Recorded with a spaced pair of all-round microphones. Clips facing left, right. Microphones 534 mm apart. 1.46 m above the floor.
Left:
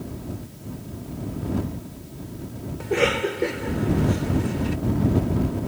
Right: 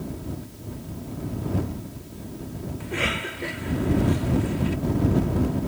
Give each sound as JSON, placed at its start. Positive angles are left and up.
{"t": 2.8, "sound": "a cough", "side_deg": 85}